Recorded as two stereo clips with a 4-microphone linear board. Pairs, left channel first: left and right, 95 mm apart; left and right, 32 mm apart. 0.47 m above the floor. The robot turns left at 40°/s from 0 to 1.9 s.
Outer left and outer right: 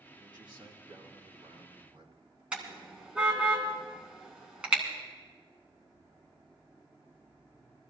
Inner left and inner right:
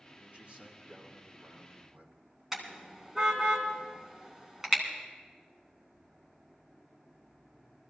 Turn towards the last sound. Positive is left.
turn(degrees=-10)  # may be behind; listen again after turning